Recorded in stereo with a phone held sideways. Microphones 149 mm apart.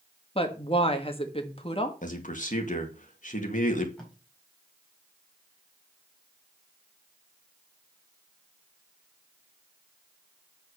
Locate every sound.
0.3 s a woman speaking: 40° left (ahead or behind), 1.7 m
2.0 s a man speaking: 60° left (ahead or behind), 2 m
4.0 s tape being pulled: 5° left (ahead or behind), 4.5 m